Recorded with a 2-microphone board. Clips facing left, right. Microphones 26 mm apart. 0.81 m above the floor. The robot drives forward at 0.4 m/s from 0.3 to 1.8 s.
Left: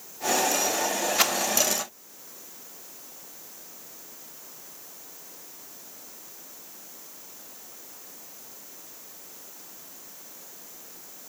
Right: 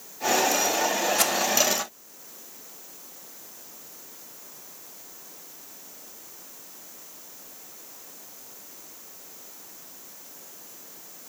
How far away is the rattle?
About 0.8 m.